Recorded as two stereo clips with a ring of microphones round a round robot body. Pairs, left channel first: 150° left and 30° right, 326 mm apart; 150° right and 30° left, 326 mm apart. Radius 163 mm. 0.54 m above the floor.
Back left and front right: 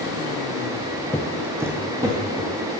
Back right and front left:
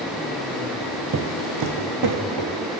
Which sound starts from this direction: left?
Footsteps, at 1.1 s.